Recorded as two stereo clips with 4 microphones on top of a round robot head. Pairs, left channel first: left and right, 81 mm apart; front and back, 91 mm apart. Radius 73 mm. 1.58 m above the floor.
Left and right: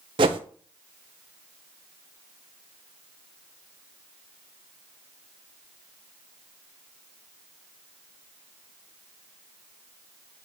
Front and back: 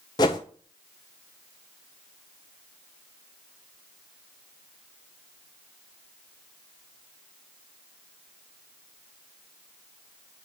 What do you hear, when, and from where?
0.2 s a whoosh: 55° right, 0.7 m